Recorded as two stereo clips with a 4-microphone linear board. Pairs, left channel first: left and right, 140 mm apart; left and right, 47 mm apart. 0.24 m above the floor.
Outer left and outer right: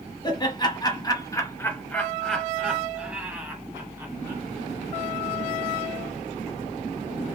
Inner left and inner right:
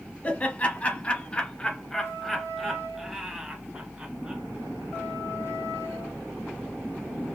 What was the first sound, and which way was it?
Laughter, 35° left (ahead or behind).